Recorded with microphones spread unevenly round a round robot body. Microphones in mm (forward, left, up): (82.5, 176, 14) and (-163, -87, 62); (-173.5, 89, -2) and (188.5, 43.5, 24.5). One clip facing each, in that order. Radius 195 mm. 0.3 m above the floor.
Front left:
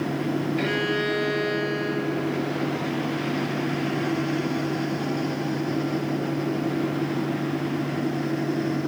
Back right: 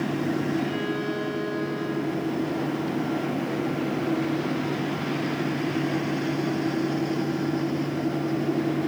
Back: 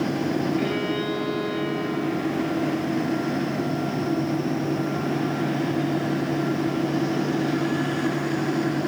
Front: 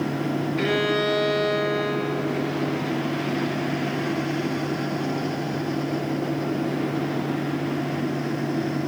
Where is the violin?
20° left, 1.8 m.